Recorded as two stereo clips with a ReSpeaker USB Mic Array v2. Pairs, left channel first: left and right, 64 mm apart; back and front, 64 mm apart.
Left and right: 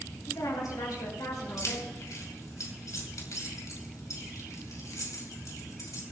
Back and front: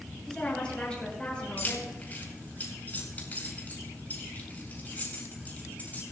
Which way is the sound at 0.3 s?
105° left.